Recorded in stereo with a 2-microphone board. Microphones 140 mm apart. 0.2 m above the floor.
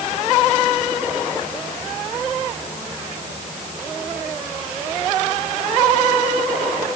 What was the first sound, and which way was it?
Only background noise.